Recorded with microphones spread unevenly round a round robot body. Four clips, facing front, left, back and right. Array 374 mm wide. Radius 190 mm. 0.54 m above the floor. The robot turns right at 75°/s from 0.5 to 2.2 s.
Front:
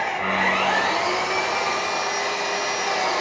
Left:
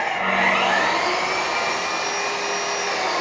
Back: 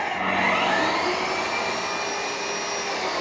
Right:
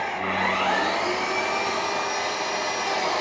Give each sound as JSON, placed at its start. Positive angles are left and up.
{"t": 0.0, "sound": "an engine running", "azimuth_deg": 170, "distance_m": 1.7}